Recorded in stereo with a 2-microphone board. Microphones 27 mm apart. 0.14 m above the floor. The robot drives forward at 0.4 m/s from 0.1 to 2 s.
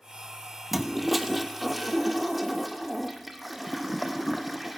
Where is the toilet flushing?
5° right (ahead or behind), 0.6 m; by 4.8 s centre (ahead or behind), 1.1 m.